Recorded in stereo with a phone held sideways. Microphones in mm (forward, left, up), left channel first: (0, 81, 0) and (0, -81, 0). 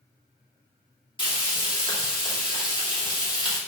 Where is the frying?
30° left (ahead or behind), 3 m.